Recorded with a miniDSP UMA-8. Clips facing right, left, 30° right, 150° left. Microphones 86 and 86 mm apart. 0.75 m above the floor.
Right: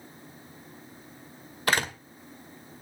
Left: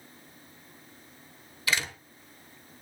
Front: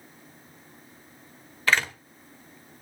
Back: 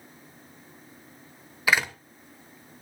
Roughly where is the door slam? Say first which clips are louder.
Right 5 dB, even; behind right.